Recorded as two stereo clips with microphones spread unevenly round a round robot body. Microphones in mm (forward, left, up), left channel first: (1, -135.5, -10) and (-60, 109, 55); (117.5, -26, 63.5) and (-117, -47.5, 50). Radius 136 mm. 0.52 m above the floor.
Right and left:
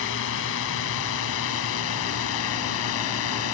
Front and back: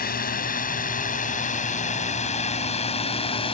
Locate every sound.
0.0 s a drone: 45° right; by 3.5 s 60° right